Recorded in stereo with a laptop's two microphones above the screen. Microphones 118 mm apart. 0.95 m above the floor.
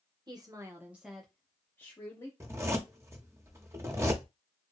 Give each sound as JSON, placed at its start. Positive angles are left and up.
{"t": 0.3, "sound": "a woman speaking", "side_deg": -35, "distance_m": 0.7}
{"t": 2.4, "sound": "a zipper", "side_deg": -20, "distance_m": 0.8}